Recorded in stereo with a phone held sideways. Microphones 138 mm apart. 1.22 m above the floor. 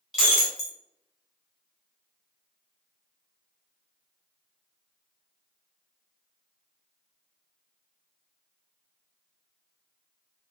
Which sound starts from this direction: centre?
Breaking glass, at 0.1 s.